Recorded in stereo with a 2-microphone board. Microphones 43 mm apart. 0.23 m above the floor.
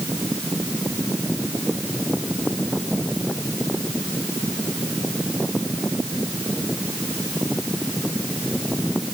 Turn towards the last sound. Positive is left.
No sound to turn to.